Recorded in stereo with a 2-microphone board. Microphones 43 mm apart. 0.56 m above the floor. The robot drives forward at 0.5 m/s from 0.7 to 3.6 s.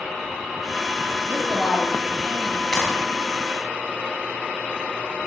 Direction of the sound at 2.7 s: 5° left (ahead or behind).